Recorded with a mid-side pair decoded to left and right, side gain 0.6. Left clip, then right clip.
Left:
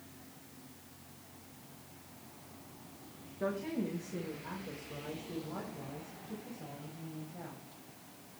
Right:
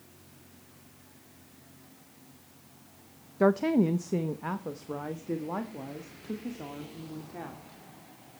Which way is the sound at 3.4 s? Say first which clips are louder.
Right 12 dB; 65° right.